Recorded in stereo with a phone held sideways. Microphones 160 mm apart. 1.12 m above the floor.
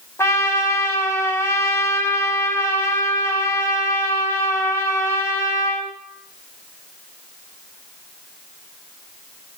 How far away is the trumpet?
About 1.5 m.